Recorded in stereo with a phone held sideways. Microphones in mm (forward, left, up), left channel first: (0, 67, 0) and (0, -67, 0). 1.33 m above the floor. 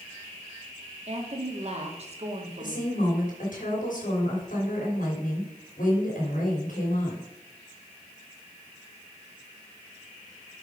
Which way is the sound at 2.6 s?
75° left (ahead or behind).